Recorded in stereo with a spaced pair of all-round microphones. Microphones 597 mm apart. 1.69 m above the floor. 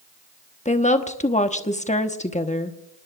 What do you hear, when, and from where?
0.7 s a woman speaking: 10° left (ahead or behind), 1.0 m